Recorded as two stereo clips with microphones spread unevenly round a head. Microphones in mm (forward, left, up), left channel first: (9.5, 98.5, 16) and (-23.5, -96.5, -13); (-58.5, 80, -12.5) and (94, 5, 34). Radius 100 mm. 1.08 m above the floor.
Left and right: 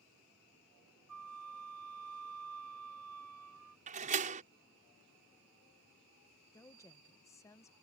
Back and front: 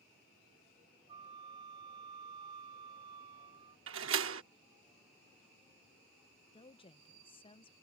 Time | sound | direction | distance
1.1 | a flute | 95° right | ?
3.9 | a door slam | 45° right | ?
6.5 | a woman speaking | 160° left | ?